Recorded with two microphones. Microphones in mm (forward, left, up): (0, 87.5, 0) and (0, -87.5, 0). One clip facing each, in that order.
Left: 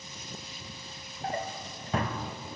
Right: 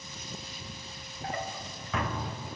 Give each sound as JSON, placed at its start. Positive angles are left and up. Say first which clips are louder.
{"t": 1.2, "sound": "a drawer", "louder": "left 2 dB", "side_deg": 35, "distance_m": 0.5}